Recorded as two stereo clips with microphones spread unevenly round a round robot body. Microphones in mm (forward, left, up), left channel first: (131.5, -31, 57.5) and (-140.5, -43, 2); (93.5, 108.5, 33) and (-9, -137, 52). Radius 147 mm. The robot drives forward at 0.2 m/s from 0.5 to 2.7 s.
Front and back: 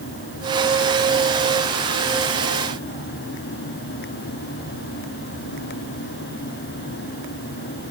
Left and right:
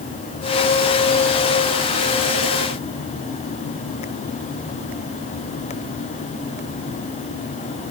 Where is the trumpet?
No trumpet in this recording.